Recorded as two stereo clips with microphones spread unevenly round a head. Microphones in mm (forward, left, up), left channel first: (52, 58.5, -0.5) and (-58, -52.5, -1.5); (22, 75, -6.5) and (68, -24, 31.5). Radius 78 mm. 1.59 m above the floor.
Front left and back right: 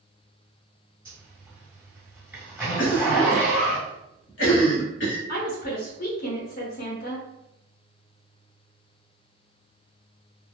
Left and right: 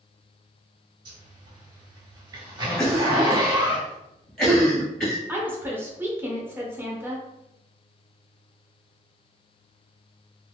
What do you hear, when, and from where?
1.1 s a zipper: 55° right, 1.9 m
2.8 s a cough: 35° left, 0.9 m
5.3 s a woman speaking: 5° left, 0.9 m